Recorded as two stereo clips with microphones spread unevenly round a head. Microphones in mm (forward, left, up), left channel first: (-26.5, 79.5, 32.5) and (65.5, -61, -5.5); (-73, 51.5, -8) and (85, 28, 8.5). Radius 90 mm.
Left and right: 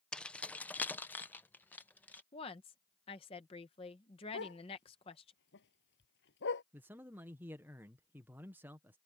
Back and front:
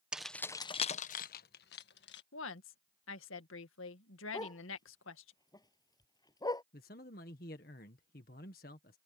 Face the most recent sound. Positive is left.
turn(degrees=-140)